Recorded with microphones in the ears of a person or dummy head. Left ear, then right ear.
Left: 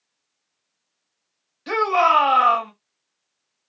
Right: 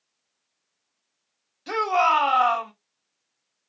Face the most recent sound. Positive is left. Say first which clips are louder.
# left 3 dB
turn(degrees=15)  # may be behind; listen again after turning